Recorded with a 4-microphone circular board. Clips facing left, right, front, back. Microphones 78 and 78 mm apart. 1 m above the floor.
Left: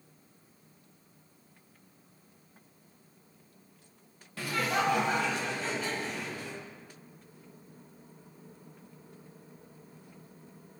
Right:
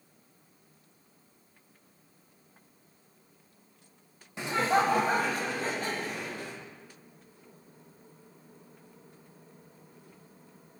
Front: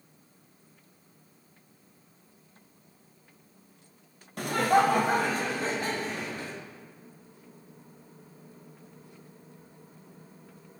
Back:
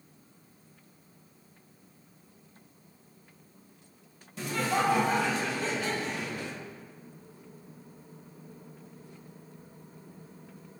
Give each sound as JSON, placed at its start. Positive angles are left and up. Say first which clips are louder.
{"t": 4.4, "sound": "laughter", "louder": "right 4 dB, front 6 dB", "azimuth_deg": -20, "distance_m": 0.6}